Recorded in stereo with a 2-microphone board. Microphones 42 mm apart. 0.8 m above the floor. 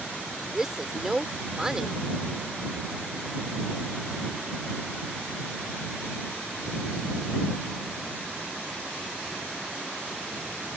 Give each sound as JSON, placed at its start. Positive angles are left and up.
{"t": 0.5, "sound": "a woman speaking", "side_deg": -10}